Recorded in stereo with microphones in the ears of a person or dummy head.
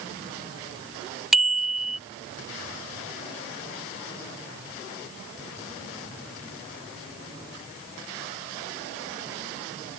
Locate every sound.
1.3 s a bicycle bell: centre (ahead or behind)